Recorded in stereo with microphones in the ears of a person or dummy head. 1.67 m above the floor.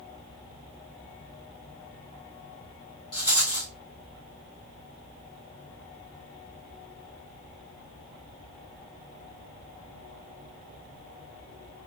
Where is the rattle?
20° left (ahead or behind), 1.3 m.